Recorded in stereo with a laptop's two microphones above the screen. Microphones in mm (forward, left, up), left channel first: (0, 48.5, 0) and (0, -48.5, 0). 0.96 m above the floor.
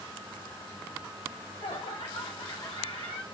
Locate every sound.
1.3 s laughter: 80° left, 3.5 m